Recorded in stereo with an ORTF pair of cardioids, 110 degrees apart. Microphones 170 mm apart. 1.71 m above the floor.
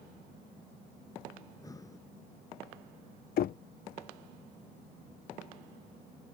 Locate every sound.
1.4 s breathing: 20° left
3.4 s knocking: 60° left